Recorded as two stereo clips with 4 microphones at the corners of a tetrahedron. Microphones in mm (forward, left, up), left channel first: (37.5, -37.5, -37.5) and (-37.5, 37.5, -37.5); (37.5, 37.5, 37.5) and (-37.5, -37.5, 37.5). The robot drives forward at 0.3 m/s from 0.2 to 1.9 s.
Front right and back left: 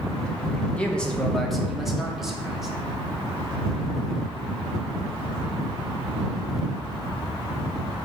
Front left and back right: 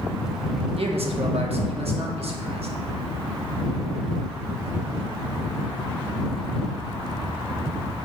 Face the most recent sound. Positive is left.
turn(degrees=-140)